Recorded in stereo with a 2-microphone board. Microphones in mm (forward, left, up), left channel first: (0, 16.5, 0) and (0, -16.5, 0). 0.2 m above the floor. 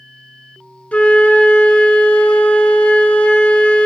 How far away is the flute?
About 0.5 m.